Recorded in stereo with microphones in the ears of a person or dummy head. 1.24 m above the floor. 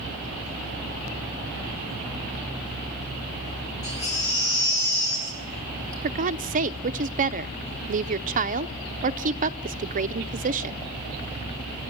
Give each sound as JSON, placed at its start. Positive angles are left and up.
{"t": 3.8, "sound": "a baby crying", "side_deg": 85, "distance_m": 4.5}
{"t": 6.0, "sound": "a woman speaking", "side_deg": -40, "distance_m": 0.6}